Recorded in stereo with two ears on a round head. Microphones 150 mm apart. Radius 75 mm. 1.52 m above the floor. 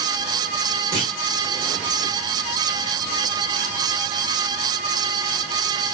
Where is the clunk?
50° right (ahead or behind), 1.8 m.